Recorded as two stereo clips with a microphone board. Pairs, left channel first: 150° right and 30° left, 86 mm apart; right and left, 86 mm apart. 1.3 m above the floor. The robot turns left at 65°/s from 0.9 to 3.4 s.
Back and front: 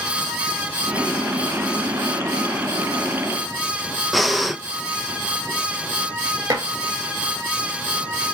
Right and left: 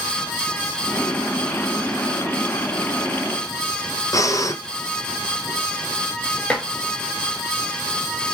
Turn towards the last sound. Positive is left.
turn(degrees=-15)